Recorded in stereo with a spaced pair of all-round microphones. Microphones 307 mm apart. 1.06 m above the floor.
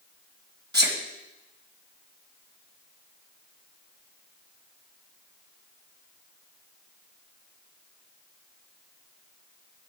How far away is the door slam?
I don't hear a door slam.